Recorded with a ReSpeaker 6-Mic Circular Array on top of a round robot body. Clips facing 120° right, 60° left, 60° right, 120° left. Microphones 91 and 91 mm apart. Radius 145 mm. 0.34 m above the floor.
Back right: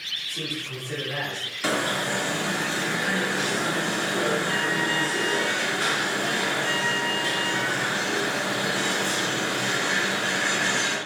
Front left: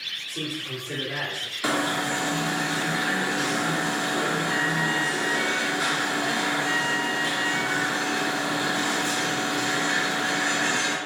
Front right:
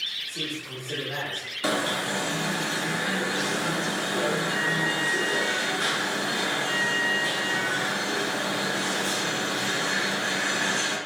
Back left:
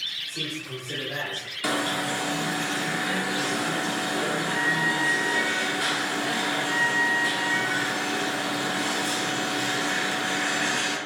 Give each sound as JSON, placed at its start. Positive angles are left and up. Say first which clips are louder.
{"t": 0.3, "sound": "a man speaking", "louder": "front left 2 dB, back left 1 dB", "azimuth_deg": 20, "distance_m": 1.6}
{"t": 1.6, "sound": "an alarm", "louder": "front left 1 dB, even", "azimuth_deg": -10, "distance_m": 1.7}